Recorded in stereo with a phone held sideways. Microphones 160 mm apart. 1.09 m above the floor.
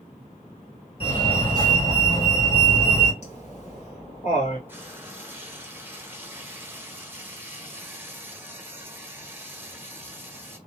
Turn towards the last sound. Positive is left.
turn(degrees=-15)  # may be behind; listen again after turning